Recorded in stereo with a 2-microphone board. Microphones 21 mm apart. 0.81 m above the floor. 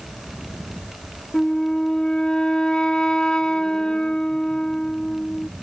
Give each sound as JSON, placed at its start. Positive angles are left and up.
{"t": 1.3, "sound": "a flute", "side_deg": 45}